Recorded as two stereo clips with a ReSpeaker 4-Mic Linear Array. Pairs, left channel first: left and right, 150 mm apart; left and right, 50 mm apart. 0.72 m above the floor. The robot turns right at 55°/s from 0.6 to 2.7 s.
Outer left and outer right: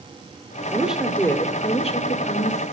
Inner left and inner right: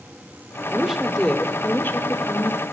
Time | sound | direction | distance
0.7 | a woman speaking | 15° right | 2 m